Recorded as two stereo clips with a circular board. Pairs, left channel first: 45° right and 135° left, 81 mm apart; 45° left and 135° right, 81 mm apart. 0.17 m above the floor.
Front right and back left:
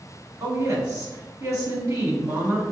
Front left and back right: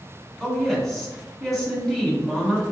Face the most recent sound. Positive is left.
turn(degrees=130)